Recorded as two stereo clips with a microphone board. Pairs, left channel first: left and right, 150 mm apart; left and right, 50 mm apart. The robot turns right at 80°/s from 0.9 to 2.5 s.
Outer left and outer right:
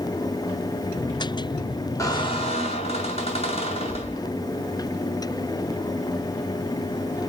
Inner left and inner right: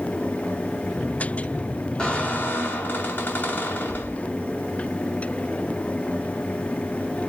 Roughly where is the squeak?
Ahead left.